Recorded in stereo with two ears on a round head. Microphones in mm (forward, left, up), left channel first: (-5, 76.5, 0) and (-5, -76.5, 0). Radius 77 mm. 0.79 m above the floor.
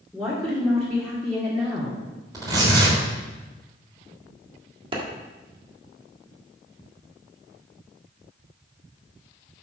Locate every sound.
0.1 s a woman speaking: centre (ahead or behind), 2.0 m
2.3 s tearing paper: 25° right (ahead or behind), 3.5 m
4.9 s a clap: 30° right (ahead or behind), 1.4 m